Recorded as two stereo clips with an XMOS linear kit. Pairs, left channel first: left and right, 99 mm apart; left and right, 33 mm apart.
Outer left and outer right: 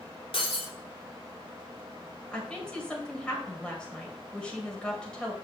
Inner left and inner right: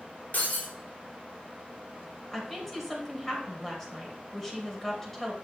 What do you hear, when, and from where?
0.3 s breaking glass: 70° left (ahead or behind), 2.5 m
2.3 s a woman speaking: 10° left (ahead or behind), 2.5 m